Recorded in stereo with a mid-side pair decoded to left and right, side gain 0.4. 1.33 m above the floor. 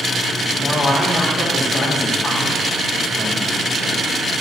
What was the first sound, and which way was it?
A man speaking, 35° left.